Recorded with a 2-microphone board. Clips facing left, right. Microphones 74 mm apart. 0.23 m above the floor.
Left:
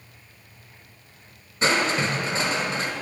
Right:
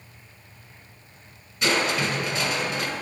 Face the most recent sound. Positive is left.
turn(degrees=35)  # may be behind; listen again after turning